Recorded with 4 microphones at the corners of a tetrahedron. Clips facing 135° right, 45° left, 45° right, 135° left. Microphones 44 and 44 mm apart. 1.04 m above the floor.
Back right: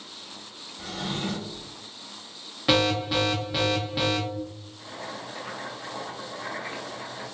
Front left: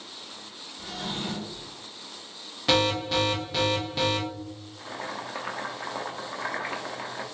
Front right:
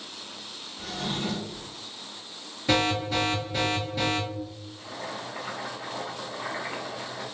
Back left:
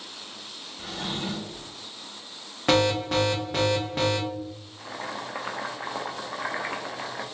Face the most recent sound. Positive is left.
turn(degrees=90)